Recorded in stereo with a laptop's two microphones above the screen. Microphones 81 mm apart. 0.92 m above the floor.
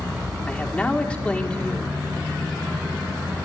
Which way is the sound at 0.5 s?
15° left (ahead or behind).